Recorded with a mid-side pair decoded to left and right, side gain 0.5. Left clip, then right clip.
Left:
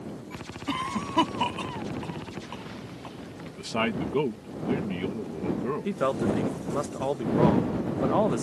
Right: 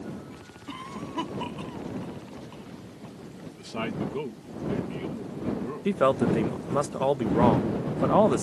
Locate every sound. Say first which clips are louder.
0.7 s a cough: left 8 dB; 55° left
3.5 s a man speaking: left 5 dB; 45° left
5.8 s a man speaking: right 6 dB; 30° right